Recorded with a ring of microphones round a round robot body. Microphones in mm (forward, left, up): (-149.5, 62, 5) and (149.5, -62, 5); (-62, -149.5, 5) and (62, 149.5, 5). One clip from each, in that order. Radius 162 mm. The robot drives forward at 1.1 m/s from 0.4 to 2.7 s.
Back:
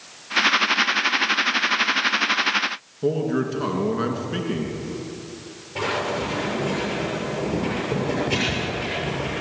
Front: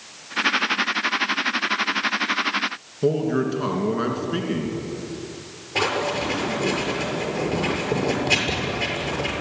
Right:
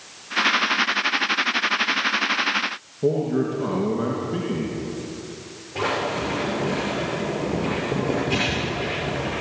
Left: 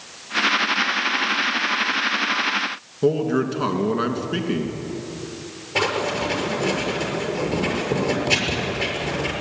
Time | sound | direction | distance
3.0 | a man speaking | 65° left | 3.5 m
5.8 | writing | 30° left | 7 m